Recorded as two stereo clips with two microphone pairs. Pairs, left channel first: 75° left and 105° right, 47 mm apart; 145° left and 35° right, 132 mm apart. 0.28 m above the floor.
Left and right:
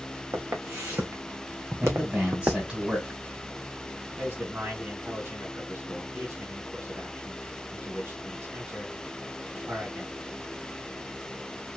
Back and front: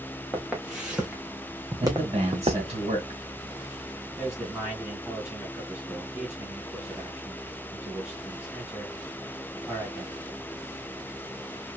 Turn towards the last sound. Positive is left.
turn(degrees=-115)